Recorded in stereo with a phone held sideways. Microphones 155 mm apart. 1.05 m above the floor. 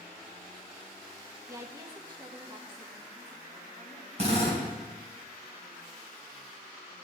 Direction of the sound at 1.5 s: 20° right (ahead or behind).